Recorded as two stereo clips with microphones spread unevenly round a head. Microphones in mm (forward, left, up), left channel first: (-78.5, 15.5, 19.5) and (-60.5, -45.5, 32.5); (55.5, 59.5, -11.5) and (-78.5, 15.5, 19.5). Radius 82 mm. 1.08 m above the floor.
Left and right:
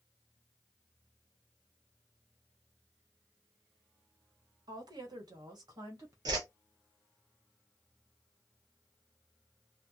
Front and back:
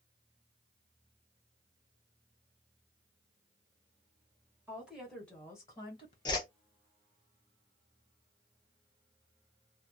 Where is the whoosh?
40° right, 0.5 m.